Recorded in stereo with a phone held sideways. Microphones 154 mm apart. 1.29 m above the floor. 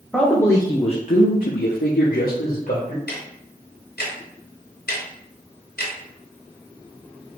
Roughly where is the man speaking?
Centre.